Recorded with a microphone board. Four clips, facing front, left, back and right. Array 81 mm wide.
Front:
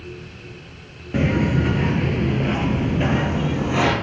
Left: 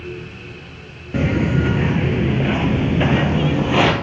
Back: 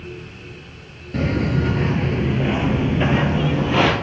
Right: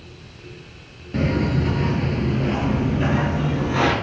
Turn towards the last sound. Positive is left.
turn(degrees=115)